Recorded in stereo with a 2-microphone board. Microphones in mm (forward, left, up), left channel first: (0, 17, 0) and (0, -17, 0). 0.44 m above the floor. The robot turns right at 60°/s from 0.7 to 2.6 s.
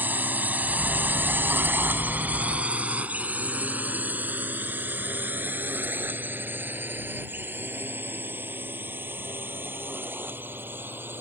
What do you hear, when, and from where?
0.0 s a drone: 65° right (ahead or behind); by 11.2 s 80° right